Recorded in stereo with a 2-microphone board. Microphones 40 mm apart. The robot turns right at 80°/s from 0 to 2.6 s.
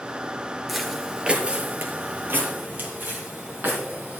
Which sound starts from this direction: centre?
Footsteps, at 0.7 s.